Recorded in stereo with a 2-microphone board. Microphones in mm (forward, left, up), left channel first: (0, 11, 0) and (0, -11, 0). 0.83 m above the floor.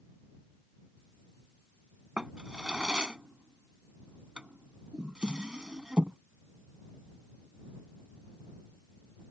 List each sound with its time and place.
2.2 s a drawer: 40° right (ahead or behind)